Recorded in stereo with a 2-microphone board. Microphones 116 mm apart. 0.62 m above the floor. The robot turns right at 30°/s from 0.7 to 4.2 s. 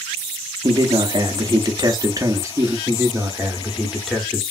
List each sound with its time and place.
0.6 s a man speaking: 95° right, 0.6 m; by 2.8 s 35° right, 0.6 m
2.9 s a man speaking: 40° right, 0.8 m; by 4.4 s straight ahead, 0.8 m